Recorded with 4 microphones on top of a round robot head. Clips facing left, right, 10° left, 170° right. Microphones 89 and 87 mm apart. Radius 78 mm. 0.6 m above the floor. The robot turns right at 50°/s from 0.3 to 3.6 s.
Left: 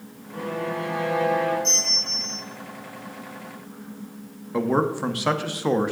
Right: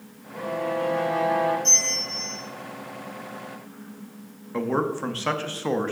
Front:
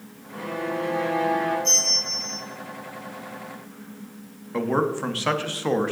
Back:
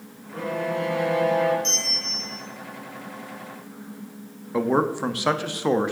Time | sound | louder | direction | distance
0.3 | a violin | right 1 dB, back 2 dB | 140° left | 1.9 m
1.6 | a bell | even, front 2 dB | straight behind | 3.5 m
4.5 | a man speaking | left 3 dB, back 2 dB | 140° left | 0.7 m